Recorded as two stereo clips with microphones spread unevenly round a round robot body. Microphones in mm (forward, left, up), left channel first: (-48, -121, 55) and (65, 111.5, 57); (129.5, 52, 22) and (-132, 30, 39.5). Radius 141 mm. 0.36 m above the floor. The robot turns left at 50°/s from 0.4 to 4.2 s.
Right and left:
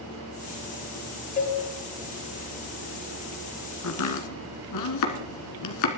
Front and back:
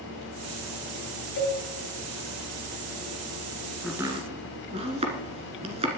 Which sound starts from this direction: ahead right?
A cowbell, at 1.4 s.